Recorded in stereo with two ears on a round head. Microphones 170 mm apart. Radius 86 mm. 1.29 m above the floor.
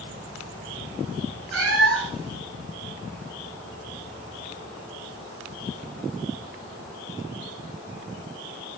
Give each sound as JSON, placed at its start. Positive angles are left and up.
{"t": 1.5, "sound": "a cat meowing", "side_deg": -80, "distance_m": 7.5}